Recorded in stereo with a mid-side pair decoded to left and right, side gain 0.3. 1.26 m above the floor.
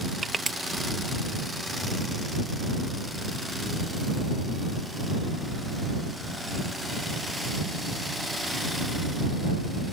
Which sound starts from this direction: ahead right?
Crushing, at 0.2 s.